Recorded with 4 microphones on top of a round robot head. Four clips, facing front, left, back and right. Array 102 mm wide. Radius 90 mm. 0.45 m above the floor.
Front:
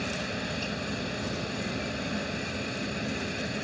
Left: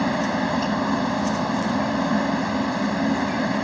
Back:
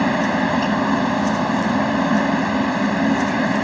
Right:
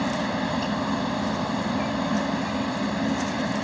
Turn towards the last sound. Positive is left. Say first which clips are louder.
# left 4 dB, back 16 dB
turn(degrees=170)